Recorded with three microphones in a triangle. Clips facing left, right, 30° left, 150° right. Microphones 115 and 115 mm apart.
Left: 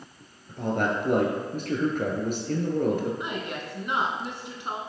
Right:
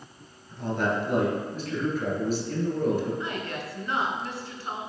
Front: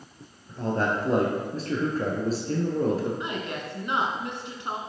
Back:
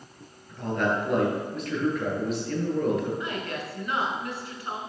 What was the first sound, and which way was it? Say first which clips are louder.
A man speaking: left 1 dB, even; 80° left.